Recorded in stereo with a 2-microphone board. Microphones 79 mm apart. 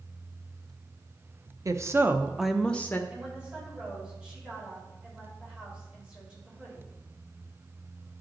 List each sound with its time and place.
1.6 s a woman speaking: 45° right (ahead or behind), 0.7 m; by 3.0 s 25° left (ahead or behind), 0.6 m
3.1 s a woman speaking: 15° right (ahead or behind), 4 m